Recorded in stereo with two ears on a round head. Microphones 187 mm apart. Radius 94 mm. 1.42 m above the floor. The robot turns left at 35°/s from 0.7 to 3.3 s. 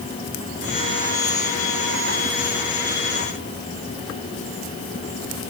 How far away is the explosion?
No explosion in this recording.